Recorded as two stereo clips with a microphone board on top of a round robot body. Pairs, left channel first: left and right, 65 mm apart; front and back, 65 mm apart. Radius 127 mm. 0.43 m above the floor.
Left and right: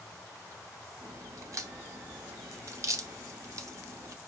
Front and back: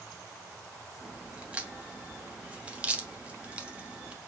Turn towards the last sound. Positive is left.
turn(degrees=-110)